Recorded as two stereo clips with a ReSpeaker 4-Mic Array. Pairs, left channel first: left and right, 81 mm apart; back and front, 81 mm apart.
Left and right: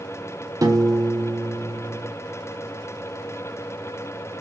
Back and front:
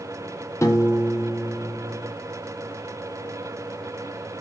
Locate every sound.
0.6 s a piano: 130° right, 0.6 m